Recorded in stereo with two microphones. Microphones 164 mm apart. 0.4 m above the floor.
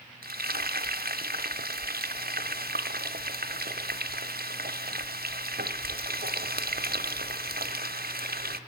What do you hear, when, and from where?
0.2 s frying: 65° right (ahead or behind), 0.8 m